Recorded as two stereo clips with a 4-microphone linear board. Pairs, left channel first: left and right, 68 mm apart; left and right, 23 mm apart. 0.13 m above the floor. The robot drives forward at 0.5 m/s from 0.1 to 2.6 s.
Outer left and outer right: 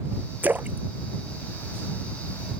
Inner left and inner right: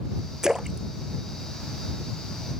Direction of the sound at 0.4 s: 25° right (ahead or behind).